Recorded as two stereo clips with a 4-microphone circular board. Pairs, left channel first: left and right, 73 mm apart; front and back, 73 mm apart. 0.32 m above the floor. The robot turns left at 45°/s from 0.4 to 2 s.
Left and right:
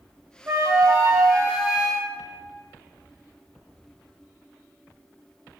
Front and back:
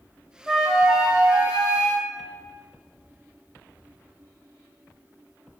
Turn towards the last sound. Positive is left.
turn(degrees=-165)